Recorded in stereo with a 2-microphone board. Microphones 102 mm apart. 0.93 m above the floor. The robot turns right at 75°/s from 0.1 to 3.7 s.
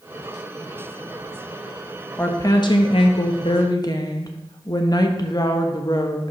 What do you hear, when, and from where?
2.2 s a woman speaking: 20° left, 1.0 m; by 6.3 s 135° left, 1.0 m